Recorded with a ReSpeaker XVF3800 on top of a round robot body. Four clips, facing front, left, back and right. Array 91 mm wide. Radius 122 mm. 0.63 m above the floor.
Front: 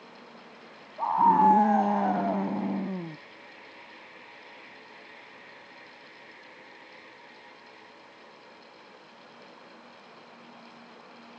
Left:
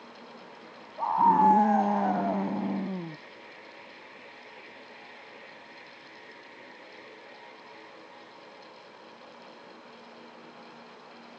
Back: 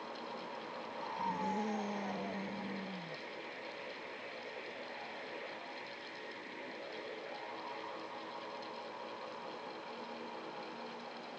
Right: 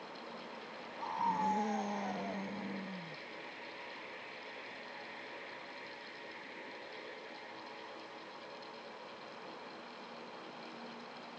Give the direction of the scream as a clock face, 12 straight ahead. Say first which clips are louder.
Left 14 dB, front 19 dB; 11 o'clock.